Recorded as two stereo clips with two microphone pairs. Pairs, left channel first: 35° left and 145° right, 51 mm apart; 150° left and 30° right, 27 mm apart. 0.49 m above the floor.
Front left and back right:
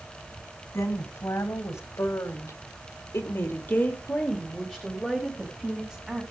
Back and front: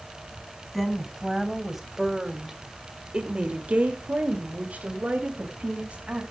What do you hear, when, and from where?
0.7 s a woman speaking: 70° left, 3.5 m; by 6.2 s 65° right, 3 m